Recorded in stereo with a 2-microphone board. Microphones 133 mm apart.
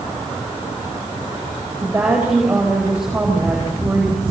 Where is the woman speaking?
10° right (ahead or behind), 8.5 m.